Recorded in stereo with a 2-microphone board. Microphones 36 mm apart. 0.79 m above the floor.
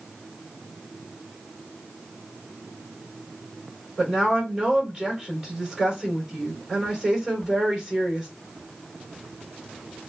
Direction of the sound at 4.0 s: 20° right (ahead or behind).